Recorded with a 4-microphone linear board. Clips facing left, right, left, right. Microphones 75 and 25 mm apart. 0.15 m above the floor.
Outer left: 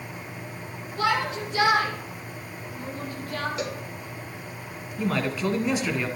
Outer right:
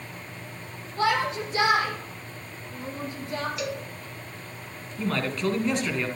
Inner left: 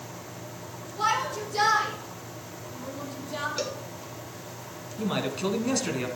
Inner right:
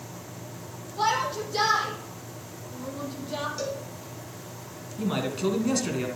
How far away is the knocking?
I don't hear knocking.